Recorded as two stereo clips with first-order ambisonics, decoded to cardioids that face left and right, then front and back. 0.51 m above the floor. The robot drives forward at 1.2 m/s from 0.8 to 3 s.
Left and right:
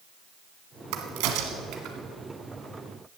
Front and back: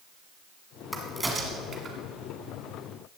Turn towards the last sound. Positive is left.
turn(degrees=-145)